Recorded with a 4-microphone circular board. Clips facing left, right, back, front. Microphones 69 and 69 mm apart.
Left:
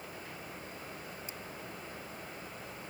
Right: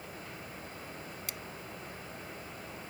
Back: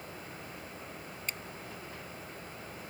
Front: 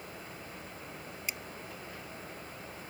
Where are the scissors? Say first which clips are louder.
Right 2 dB, even; 80° right.